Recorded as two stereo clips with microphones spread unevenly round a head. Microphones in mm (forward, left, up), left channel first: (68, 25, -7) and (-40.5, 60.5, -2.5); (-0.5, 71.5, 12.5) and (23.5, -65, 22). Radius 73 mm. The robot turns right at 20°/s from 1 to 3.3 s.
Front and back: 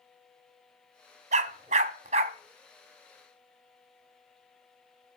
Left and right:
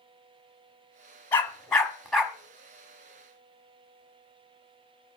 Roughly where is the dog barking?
Behind.